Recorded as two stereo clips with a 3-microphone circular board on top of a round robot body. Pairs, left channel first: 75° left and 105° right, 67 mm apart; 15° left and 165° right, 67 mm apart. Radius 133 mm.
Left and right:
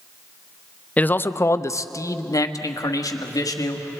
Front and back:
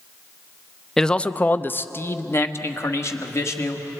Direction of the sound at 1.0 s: 90° left.